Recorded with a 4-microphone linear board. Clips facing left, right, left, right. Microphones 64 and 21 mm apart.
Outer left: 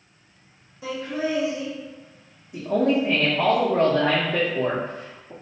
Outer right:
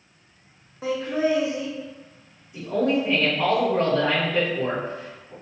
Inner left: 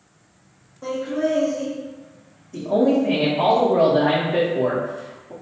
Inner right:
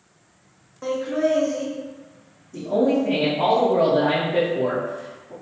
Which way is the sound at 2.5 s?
60° left (ahead or behind).